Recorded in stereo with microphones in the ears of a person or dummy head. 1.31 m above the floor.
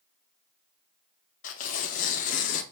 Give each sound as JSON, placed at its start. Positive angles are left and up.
{"t": 1.4, "sound": "tearing paper", "side_deg": 45, "distance_m": 0.7}